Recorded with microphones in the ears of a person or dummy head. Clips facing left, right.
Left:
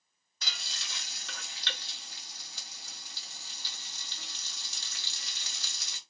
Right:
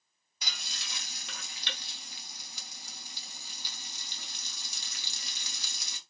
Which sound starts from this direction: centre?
Frying, at 0.4 s.